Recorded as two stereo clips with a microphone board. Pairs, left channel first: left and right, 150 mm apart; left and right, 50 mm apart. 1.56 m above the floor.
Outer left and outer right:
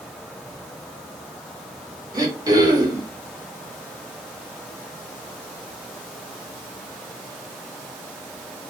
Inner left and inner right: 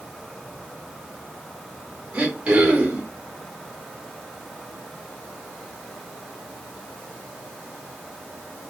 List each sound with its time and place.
2.1 s throat clearing: 25° right (ahead or behind), 1.1 m